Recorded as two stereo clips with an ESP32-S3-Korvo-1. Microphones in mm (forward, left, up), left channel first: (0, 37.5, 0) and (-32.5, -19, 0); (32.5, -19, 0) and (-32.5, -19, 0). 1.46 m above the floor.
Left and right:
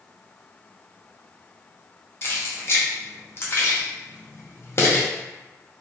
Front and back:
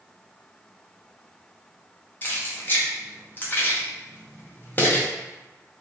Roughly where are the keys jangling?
Ahead left.